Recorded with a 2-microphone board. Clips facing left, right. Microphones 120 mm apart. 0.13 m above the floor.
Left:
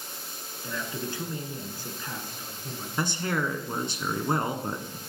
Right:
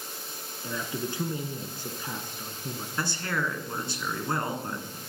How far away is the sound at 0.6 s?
About 1.2 m.